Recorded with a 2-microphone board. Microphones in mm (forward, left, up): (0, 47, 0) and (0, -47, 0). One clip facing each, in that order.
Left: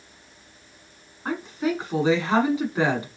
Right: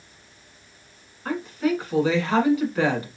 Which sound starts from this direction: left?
A woman speaking, at 1.2 s.